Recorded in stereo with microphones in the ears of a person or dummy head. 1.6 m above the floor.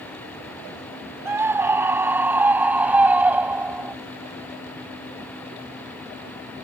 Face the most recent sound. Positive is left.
turn(degrees=-10)  # may be behind; listen again after turning